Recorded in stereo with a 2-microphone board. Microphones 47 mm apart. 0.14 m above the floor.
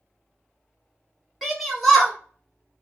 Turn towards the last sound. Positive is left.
turn(degrees=0)  # may be behind; listen again after turning